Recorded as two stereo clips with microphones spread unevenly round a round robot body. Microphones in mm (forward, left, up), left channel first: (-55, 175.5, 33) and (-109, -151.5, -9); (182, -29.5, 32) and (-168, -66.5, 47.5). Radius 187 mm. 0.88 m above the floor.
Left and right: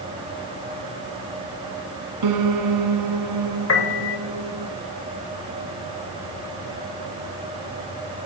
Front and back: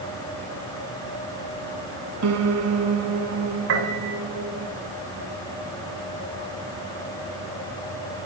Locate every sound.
2.2 s a piano: 130° right, 2.5 m
3.7 s a piano: 130° left, 5 m